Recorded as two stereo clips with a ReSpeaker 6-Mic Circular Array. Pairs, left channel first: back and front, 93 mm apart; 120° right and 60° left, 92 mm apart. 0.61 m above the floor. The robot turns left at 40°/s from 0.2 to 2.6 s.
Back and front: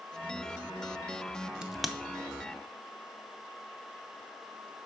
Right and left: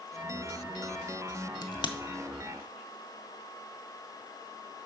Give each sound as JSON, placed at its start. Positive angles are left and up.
{"t": 1.6, "sound": "a crack", "azimuth_deg": -80, "distance_m": 0.6}